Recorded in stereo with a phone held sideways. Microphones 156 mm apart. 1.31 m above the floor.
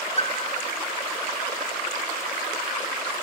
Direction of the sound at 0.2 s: 40° left (ahead or behind).